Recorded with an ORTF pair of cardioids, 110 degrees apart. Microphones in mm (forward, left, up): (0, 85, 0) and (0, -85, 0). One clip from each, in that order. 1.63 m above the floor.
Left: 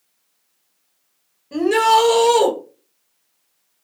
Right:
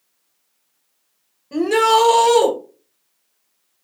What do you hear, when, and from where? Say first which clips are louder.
1.5 s a shout: even; 5° right, 1.2 m